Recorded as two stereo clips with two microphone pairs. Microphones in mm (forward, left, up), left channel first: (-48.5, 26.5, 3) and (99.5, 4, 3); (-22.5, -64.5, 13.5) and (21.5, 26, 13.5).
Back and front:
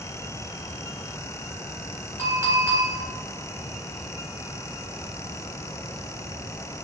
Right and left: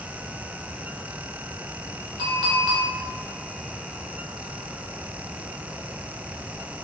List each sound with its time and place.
2.2 s a clink: 50° left, 0.8 m